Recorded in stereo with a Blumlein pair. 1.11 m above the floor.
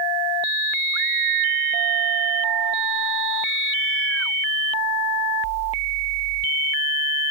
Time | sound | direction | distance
0.9 | a scream | 45° right | ?